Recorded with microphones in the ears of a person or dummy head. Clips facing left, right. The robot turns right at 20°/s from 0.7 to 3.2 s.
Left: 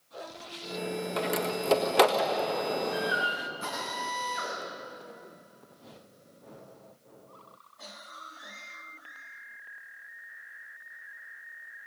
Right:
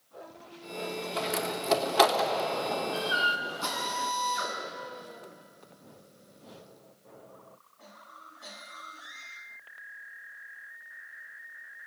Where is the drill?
30° left (ahead or behind), 8 m.